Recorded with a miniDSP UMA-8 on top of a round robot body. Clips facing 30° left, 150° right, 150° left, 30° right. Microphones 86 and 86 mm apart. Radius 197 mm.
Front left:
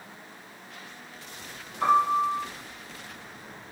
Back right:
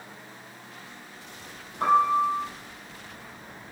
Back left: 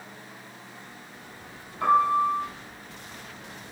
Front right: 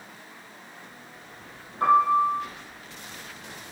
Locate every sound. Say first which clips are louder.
1.8 s a piano: back right 1 dB, front right 2 dB; 90° right, 4.5 m